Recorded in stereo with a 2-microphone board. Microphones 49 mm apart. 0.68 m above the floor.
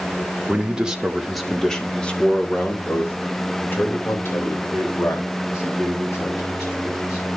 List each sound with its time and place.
0.5 s a man speaking: 20° right (ahead or behind), 1.6 m; by 7.3 s 75° left (ahead or behind), 4.5 m